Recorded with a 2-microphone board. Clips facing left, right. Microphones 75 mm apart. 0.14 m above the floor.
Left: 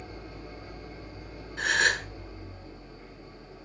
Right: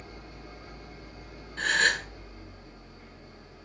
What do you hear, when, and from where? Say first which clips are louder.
0.0 s an engine running: left 3 dB; 25° left (ahead or behind), 1.9 m
1.6 s a gasp: even; 10° left (ahead or behind), 1.2 m